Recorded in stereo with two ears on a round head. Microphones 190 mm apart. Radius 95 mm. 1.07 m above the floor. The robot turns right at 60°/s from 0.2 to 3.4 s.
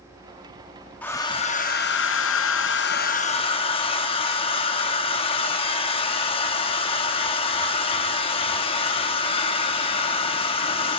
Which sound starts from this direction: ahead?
A hair dryer, at 1.0 s.